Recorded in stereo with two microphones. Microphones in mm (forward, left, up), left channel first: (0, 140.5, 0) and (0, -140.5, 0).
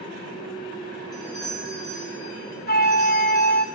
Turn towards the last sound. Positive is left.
turn(degrees=35)  # may be behind; listen again after turning